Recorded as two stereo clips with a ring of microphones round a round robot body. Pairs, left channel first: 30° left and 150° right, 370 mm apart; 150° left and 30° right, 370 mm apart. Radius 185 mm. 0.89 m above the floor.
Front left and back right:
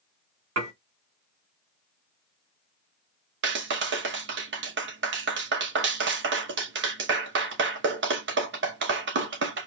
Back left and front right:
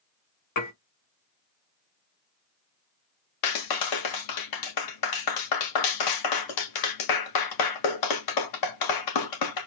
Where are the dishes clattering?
160° left, 1.8 m.